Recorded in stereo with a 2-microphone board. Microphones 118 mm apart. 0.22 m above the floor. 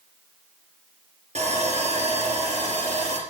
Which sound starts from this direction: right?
Sawing, at 1.4 s.